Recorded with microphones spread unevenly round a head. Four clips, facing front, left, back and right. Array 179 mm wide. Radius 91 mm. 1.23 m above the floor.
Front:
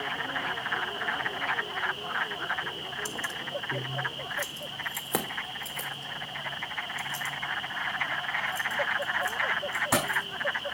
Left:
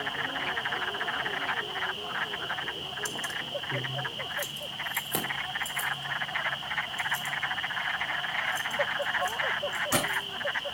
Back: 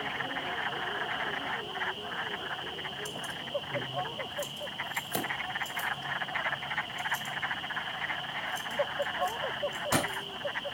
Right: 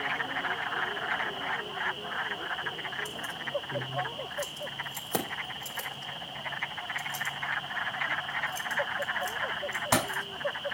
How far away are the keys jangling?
About 3 m.